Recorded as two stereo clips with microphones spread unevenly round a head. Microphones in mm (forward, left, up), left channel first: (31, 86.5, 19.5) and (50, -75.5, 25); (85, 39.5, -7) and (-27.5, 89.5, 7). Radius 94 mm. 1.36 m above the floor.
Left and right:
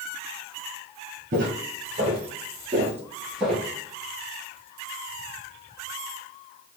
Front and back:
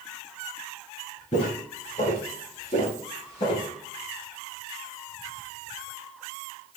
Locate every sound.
1.3 s footsteps: 65° right, 2 m; by 3.7 s 10° left, 1.7 m